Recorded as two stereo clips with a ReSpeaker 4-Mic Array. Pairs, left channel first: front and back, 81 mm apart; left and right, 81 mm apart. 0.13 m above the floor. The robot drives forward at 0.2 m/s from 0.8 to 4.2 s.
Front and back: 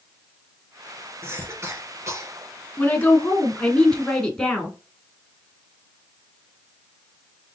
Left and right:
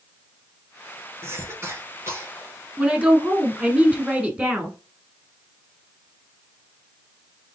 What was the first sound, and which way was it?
A cough, 135° right.